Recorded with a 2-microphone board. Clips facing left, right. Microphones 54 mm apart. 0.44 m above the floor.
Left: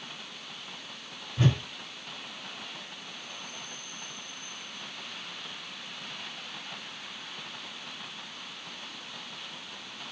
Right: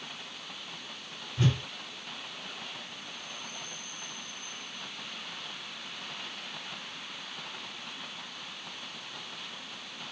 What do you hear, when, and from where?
1.4 s a whoosh: 30° left (ahead or behind), 1.8 m